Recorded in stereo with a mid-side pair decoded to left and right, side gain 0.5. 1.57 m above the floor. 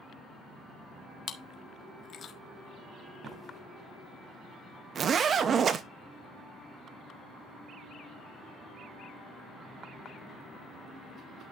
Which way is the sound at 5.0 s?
45° right.